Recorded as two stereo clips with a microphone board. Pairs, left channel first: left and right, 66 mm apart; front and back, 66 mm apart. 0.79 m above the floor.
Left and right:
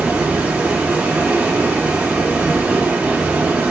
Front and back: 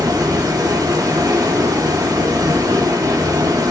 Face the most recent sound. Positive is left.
turn(degrees=-160)